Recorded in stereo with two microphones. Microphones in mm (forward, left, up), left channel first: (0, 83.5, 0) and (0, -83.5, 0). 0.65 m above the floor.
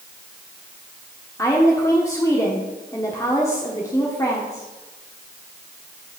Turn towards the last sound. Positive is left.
turn(degrees=20)  # may be behind; listen again after turning